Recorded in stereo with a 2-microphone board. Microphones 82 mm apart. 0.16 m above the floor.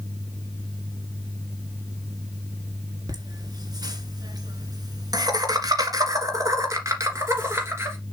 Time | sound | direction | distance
3.1 | laughter | 50° right (ahead or behind) | 2.0 m